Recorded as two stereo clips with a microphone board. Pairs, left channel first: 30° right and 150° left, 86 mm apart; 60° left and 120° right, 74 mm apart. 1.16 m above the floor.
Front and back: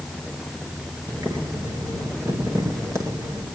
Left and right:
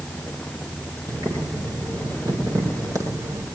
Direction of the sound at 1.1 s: 160° right.